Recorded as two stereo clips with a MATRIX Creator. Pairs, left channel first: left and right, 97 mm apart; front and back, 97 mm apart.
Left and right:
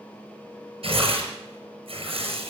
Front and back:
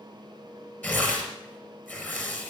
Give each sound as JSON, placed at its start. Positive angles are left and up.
{"t": 0.8, "sound": "tearing paper", "azimuth_deg": -70, "distance_m": 4.0}